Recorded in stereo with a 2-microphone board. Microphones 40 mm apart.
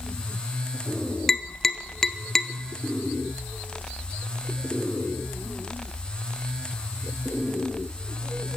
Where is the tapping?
10° left (ahead or behind), 0.5 m.